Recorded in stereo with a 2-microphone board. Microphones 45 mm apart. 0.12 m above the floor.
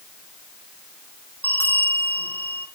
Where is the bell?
55° left (ahead or behind), 4 m.